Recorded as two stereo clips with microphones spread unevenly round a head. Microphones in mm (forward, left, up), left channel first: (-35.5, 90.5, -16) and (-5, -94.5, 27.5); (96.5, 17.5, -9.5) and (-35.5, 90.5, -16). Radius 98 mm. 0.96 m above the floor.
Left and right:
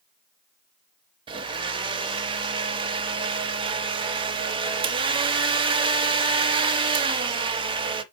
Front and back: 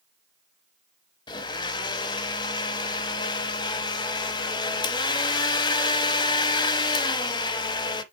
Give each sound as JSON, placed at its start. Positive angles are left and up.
{"t": 1.3, "sound": "a blender", "azimuth_deg": -65, "distance_m": 0.9}